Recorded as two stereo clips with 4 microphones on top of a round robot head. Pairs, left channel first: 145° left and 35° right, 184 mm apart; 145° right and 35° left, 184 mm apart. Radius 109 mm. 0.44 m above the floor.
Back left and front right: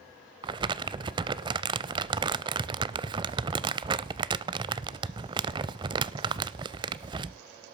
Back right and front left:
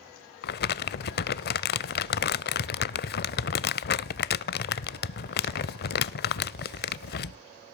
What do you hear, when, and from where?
0.4 s crumpling: 105° right, 0.5 m